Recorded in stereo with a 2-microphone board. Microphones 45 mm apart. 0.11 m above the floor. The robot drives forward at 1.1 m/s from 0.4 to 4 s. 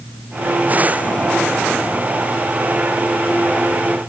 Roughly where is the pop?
No pop in this recording.